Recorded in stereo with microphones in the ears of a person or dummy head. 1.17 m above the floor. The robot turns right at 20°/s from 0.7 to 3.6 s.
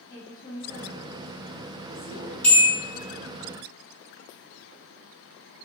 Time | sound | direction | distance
0.1 | a woman speaking | 20° left (ahead or behind) | 0.7 m
2.4 | a bell | 5° left (ahead or behind) | 1.2 m